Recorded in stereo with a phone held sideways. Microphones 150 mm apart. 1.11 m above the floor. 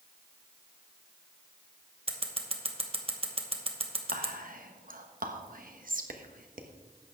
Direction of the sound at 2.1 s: 40° right (ahead or behind).